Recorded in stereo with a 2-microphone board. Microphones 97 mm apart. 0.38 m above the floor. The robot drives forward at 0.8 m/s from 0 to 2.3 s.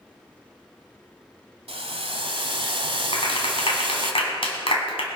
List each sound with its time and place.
1.7 s boiling: 80° right, 1.2 m; by 4.1 s 65° right (ahead or behind), 1.3 m
3.1 s a clap: 70° left (ahead or behind), 2 m